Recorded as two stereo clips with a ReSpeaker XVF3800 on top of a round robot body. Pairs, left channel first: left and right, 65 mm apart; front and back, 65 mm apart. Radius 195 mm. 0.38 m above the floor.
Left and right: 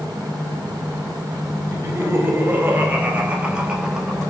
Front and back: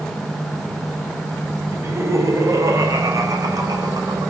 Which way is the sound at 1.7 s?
135° right.